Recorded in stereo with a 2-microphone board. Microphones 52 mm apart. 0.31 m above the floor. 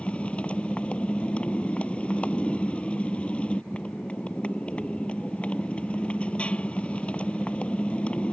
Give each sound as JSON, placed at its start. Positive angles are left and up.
{"t": 0.0, "sound": "a motorcycle", "side_deg": 25}